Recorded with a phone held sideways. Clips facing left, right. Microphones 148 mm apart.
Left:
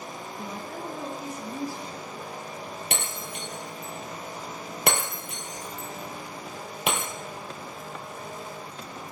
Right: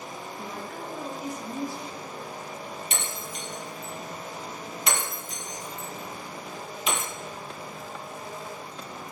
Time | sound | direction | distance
0.4 | a woman speaking | 35° left (ahead or behind) | 6.5 m
2.9 | breaking glass | 65° left (ahead or behind) | 3.5 m